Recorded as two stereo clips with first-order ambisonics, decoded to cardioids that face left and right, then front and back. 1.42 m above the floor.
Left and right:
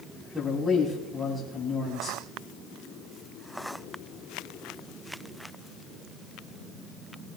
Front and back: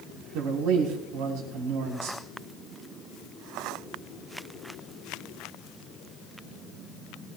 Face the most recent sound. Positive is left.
turn(degrees=175)